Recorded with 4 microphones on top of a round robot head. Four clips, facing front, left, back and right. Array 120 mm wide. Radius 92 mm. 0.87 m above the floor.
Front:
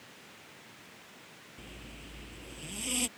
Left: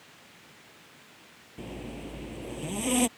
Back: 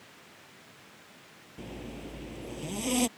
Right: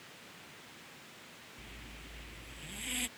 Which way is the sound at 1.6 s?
115° left.